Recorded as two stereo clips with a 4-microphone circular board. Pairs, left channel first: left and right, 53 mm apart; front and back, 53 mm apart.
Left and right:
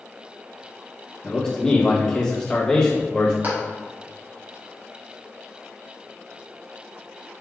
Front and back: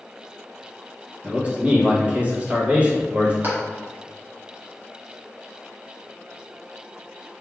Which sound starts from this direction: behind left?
A man speaking, at 1.2 s.